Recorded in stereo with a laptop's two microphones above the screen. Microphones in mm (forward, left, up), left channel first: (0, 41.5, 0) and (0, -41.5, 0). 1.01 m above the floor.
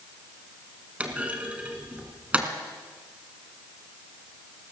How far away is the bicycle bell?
No bicycle bell in this recording.